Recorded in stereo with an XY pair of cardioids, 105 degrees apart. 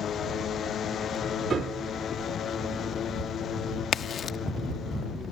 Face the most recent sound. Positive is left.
turn(degrees=45)